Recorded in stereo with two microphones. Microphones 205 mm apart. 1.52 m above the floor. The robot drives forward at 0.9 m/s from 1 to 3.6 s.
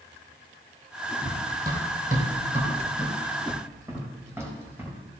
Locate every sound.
1.2 s running footsteps: 55° right (ahead or behind), 3 m; by 5.0 s 10° right (ahead or behind), 4 m